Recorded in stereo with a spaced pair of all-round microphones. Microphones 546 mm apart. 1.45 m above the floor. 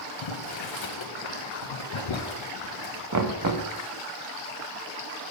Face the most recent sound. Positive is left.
turn(degrees=-35)  # may be behind; listen again after turning